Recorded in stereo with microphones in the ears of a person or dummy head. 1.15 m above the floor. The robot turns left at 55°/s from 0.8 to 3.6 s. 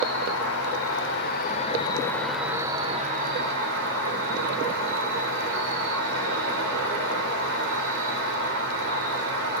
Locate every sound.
0.0 s an insect: 90° left, 4 m; by 9.6 s 65° right, 4 m